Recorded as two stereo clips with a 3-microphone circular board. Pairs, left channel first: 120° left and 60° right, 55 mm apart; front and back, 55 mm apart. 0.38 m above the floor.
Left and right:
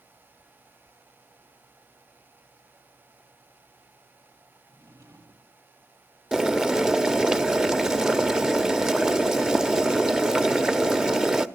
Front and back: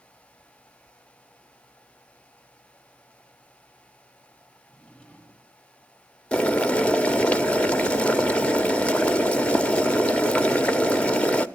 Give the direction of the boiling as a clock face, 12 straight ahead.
12 o'clock.